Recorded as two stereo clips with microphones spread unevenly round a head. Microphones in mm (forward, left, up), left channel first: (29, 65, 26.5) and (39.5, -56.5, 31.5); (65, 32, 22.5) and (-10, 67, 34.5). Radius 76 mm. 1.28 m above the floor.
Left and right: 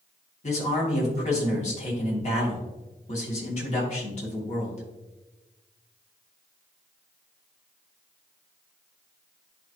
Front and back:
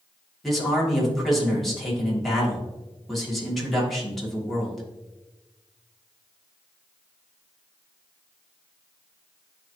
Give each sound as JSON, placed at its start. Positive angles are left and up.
{"t": 0.4, "sound": "a man speaking", "azimuth_deg": 65, "distance_m": 3.0}